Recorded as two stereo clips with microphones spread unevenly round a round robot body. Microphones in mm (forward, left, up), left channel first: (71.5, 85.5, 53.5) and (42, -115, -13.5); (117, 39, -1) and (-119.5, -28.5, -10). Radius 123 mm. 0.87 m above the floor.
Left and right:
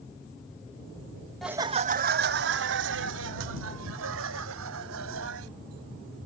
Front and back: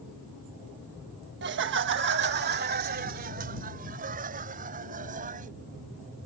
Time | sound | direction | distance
1.4 | laughter | 170° right | ?